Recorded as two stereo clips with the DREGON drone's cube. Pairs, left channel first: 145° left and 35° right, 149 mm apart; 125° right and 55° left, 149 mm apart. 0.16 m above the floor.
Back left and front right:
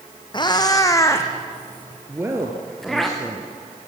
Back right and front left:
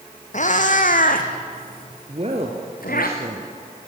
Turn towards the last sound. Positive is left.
turn(degrees=35)